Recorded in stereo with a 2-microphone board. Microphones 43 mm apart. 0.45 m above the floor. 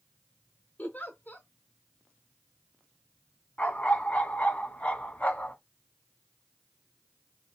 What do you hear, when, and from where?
0.8 s a giggle: 45° left (ahead or behind), 0.9 m
3.6 s a dog barking: 30° left (ahead or behind), 1.7 m